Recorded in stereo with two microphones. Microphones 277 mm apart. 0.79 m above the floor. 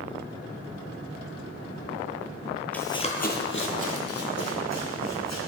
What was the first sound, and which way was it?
Running footsteps, 5° left (ahead or behind).